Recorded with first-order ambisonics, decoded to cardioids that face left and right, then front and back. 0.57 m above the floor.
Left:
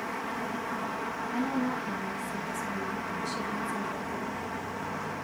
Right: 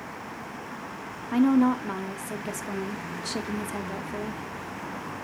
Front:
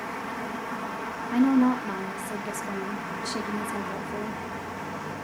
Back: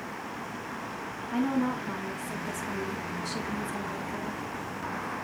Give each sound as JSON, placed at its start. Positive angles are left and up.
{"t": 1.3, "sound": "a woman speaking", "azimuth_deg": -70, "distance_m": 0.9}